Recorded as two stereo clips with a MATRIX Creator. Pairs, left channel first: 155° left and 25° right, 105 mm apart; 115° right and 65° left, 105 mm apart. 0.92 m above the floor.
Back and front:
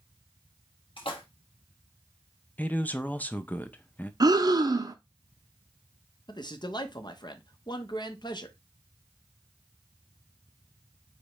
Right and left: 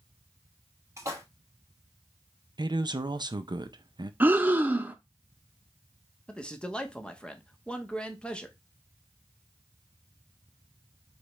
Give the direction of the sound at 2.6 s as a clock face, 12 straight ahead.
9 o'clock.